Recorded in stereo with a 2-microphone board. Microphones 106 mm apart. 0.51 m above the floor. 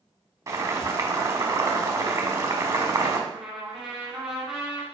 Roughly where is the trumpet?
Centre.